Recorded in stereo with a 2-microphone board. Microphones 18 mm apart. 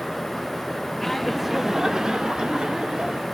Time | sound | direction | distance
1.0 | laughter | 15° left (ahead or behind) | 0.9 m